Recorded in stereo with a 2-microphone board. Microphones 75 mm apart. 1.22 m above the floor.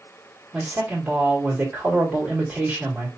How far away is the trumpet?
No trumpet in this recording.